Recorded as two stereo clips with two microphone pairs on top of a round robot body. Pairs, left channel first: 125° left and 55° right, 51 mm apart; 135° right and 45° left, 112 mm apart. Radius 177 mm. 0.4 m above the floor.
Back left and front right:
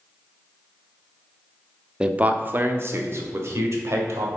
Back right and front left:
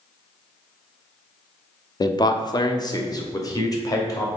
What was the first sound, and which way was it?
A man speaking, 120° right.